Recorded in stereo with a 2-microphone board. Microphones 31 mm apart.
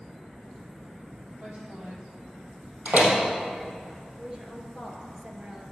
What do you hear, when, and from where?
1.4 s a woman speaking: 55° right (ahead or behind), 4 m
2.9 s a door slam: 55° right (ahead or behind), 3 m
4.2 s a woman speaking: 25° right (ahead or behind), 1.5 m